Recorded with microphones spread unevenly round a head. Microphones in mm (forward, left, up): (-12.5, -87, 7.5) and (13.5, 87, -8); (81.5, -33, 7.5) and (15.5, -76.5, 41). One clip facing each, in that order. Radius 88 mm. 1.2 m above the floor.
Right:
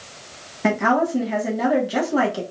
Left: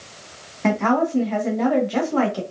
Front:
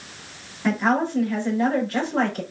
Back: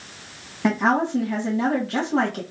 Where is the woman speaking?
175° right, 1.9 m.